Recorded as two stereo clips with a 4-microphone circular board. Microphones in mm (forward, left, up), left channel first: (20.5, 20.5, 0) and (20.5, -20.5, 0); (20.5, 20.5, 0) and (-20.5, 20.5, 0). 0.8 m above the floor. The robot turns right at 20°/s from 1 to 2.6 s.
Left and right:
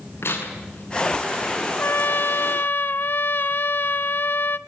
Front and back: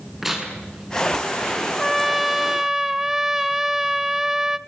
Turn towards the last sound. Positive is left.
turn(degrees=100)